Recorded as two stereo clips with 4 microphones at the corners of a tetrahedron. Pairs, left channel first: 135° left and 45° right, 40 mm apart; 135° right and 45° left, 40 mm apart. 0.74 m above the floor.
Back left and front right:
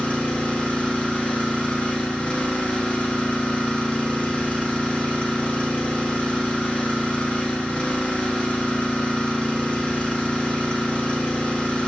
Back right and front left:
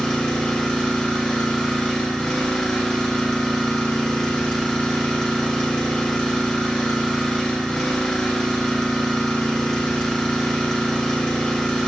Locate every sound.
0.0 s an engine running: 160° left, 0.9 m